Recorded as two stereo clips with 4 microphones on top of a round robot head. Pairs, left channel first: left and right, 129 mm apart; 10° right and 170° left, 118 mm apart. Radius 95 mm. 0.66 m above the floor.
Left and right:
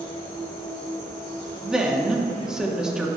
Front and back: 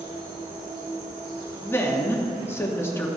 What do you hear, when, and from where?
0.0 s an insect: 135° left, 3 m
1.6 s a woman speaking: 15° right, 1.1 m